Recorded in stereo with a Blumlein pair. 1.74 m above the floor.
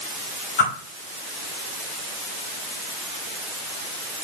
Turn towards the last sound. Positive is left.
turn(degrees=50)